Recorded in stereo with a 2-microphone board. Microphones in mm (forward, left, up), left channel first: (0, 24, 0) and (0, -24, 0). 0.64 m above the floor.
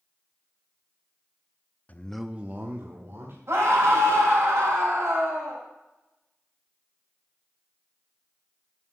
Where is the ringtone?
I don't hear a ringtone.